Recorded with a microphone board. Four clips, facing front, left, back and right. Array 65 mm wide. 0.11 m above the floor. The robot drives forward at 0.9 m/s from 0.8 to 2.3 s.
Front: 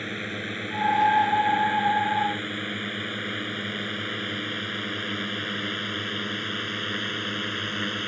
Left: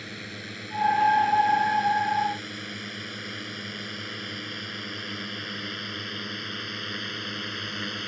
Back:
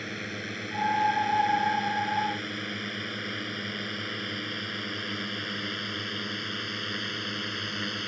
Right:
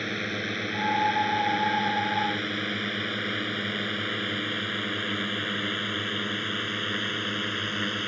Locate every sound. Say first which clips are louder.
0.0 s a drone: right 8 dB, front 4 dB; 70° right; by 8.1 s 40° right